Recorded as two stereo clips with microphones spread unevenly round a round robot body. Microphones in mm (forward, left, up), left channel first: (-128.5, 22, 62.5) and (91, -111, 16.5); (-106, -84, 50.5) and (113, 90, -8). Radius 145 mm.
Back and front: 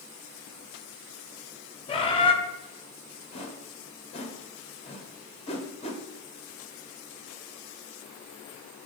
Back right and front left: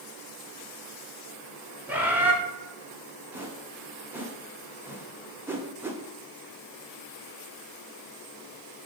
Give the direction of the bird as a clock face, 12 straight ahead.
9 o'clock.